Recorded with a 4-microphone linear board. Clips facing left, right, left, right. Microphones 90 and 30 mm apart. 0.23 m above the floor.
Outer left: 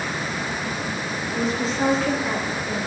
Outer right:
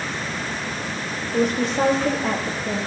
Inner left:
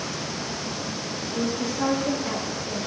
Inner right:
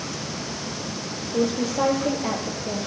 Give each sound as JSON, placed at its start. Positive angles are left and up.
{"t": 1.3, "sound": "a woman speaking", "side_deg": -80, "distance_m": 5.0}